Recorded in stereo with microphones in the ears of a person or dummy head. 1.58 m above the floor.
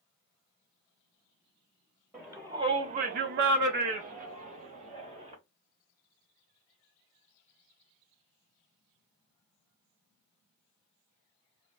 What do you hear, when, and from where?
2.1 s a shout: 5° right (ahead or behind), 0.8 m; by 5.3 s 35° right (ahead or behind), 1.6 m